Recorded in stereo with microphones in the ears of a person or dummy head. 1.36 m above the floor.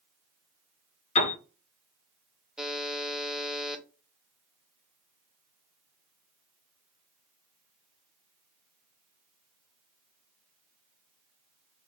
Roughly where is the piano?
Left.